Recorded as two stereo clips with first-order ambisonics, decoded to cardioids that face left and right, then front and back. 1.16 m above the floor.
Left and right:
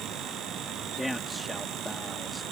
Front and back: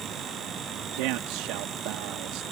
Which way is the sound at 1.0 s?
175° left.